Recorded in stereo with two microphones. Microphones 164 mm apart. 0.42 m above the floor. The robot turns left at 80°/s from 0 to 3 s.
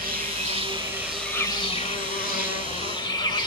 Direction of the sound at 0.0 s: 90° right.